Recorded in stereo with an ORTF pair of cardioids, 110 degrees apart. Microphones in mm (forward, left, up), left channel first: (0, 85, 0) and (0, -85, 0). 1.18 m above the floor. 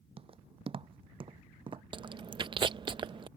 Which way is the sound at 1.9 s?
30° right.